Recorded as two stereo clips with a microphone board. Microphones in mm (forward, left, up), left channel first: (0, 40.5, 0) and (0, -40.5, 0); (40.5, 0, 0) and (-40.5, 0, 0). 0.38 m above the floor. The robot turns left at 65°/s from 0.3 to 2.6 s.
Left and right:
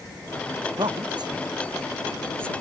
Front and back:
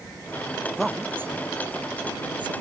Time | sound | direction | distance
0.6 | a woman speaking | 75° right | ?